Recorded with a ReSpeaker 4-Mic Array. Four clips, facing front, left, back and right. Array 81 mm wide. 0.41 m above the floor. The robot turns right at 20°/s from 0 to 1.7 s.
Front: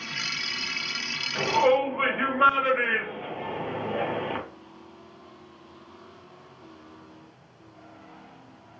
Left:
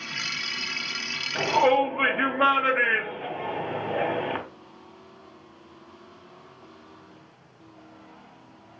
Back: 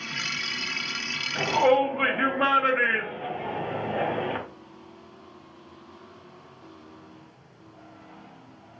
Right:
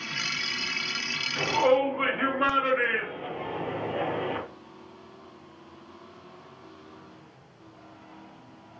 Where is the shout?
75° left, 1.0 m; by 4.4 s 85° left, 1.0 m.